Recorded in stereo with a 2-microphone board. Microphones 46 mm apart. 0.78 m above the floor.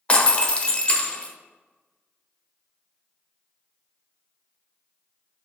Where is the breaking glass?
25° left (ahead or behind), 0.9 m.